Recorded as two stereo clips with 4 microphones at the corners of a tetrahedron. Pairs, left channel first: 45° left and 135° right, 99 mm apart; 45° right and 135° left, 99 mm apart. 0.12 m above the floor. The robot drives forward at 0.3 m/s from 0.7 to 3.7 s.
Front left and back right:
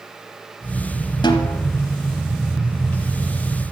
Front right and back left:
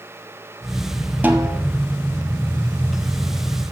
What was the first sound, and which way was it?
A snare drum, 65° left.